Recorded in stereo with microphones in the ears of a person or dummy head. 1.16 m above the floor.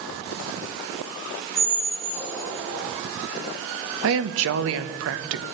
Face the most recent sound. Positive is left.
turn(degrees=-70)  # may be behind; listen again after turning